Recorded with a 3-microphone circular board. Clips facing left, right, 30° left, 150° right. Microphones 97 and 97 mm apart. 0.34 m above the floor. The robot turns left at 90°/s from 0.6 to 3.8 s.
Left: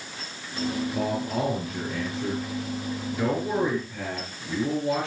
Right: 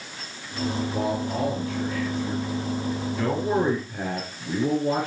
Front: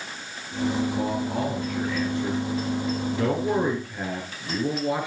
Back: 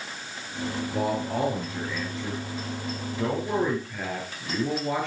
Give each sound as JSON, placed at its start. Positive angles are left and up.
{"t": 0.9, "sound": "a man speaking", "azimuth_deg": -150, "distance_m": 5.0}